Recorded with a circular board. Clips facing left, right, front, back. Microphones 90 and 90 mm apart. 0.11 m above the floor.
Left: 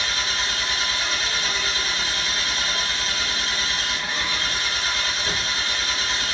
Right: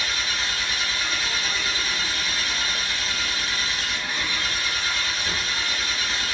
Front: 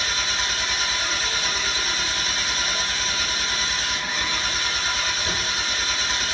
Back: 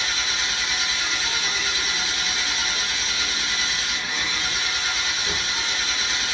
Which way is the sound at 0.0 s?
40° left.